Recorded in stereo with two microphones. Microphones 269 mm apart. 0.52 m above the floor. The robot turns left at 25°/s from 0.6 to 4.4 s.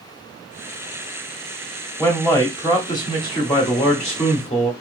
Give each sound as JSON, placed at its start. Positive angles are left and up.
{"t": 2.0, "sound": "a man speaking", "side_deg": 5, "distance_m": 0.8}